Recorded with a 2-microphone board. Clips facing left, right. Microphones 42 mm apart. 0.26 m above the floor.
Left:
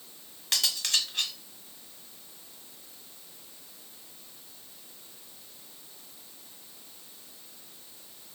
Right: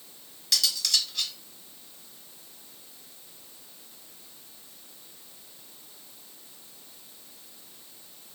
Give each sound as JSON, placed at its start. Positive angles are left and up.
{"t": 0.5, "sound": "cutlery clinking", "side_deg": 40, "distance_m": 0.9}